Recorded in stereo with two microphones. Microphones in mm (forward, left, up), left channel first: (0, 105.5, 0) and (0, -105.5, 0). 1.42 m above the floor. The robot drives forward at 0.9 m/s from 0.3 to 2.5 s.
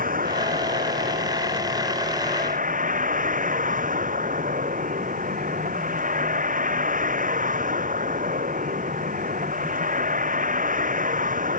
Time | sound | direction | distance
0.0 | a vehicle | 40° right (ahead or behind) | ?